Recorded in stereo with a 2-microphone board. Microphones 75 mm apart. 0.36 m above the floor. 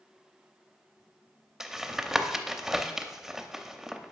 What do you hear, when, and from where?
1.6 s tapping: 5° right (ahead or behind), 0.6 m